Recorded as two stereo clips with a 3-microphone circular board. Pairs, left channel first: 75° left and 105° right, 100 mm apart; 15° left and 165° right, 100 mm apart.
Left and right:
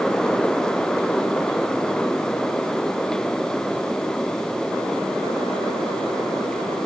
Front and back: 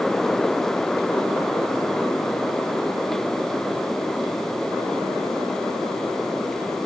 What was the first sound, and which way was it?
Only background noise.